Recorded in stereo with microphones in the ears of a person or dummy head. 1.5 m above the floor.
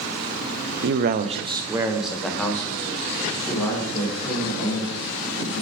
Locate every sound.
0.8 s a man speaking: 60° right (ahead or behind), 0.7 m; by 5.6 s 30° left (ahead or behind), 3 m